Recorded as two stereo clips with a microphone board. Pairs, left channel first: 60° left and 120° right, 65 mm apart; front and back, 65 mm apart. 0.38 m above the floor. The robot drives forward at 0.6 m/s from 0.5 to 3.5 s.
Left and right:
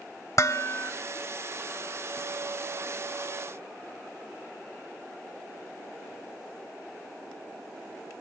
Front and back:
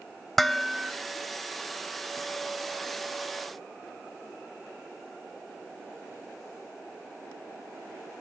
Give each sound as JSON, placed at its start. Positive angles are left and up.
{"t": 0.4, "sound": "dishes clattering", "azimuth_deg": 90, "distance_m": 1.1}